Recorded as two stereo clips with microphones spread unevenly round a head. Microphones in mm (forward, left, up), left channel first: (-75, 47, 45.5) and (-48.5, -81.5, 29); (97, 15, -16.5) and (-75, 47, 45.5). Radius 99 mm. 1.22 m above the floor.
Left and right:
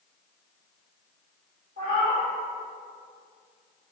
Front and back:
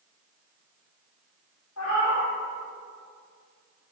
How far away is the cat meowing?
About 1.9 m.